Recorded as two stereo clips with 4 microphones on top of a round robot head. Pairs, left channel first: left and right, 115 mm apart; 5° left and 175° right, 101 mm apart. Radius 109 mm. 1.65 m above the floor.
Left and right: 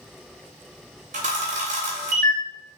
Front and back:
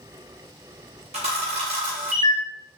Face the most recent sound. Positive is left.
turn(degrees=-130)